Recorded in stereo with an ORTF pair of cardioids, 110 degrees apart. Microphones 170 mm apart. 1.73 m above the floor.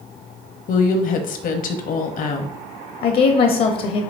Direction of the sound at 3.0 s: 60° left.